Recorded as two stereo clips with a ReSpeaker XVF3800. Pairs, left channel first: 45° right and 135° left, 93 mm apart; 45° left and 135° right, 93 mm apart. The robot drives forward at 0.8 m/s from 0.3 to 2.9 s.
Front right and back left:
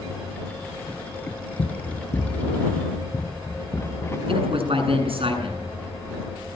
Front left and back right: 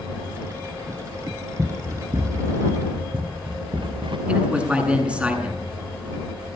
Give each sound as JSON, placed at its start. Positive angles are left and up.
{"t": 1.6, "sound": "running footsteps", "azimuth_deg": -55, "distance_m": 1.7}
{"t": 4.3, "sound": "a man speaking", "azimuth_deg": 145, "distance_m": 8.5}